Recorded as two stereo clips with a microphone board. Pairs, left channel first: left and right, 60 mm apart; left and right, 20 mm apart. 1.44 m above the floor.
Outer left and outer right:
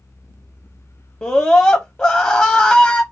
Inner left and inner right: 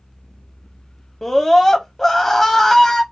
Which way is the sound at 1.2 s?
25° left (ahead or behind).